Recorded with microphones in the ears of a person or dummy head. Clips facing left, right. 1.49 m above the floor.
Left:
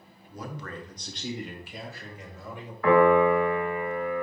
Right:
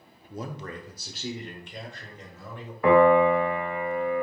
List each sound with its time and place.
0.3 s a man speaking: 30° right (ahead or behind), 0.8 m; by 2.7 s 15° left (ahead or behind), 1.8 m
2.8 s a piano: 20° right (ahead or behind), 1.1 m